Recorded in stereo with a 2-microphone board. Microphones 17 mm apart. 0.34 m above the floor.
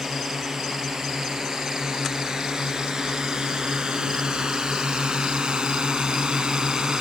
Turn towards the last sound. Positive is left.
turn(degrees=-55)  # may be behind; listen again after turning